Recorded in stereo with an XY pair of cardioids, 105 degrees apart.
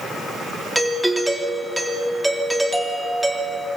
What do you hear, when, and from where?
0.8 s a doorbell: straight ahead, 3.5 m